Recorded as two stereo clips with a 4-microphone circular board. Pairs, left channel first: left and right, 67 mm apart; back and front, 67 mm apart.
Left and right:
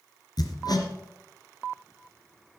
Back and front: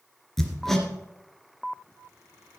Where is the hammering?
95° left, 1.9 m.